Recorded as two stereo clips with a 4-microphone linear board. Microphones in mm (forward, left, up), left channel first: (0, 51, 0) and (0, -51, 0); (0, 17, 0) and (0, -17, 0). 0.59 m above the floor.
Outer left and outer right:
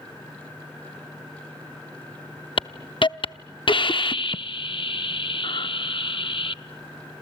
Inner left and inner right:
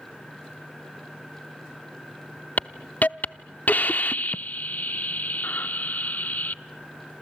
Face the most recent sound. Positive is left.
turn(degrees=60)  # may be behind; listen again after turning